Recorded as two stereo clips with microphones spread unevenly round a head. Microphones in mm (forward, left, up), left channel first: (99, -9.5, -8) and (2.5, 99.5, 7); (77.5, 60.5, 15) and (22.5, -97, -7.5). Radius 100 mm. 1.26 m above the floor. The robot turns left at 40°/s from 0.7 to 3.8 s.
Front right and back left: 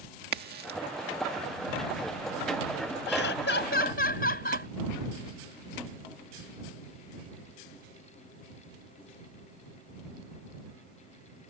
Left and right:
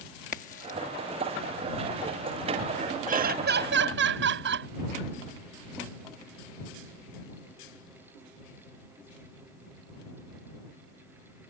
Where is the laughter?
70° right; by 4.7 s 100° right.